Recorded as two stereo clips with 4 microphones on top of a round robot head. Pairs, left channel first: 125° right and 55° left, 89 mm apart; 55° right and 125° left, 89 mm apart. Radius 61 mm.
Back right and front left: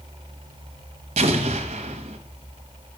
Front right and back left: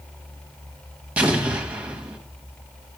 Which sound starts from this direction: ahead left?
An explosion, at 1.2 s.